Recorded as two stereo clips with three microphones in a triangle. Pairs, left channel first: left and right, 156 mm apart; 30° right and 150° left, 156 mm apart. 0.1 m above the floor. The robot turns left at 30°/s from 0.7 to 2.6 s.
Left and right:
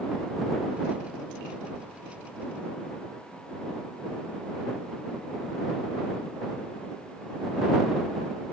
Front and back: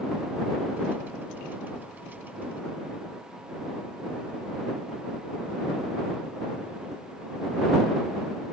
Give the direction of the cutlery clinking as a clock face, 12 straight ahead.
No cutlery clinking in this recording.